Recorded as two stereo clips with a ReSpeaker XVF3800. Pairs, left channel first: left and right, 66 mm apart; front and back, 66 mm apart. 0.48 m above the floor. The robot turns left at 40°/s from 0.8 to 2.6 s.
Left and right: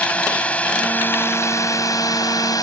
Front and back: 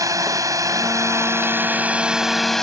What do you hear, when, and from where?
0.0 s a drone: 160° left; by 2.6 s 80° left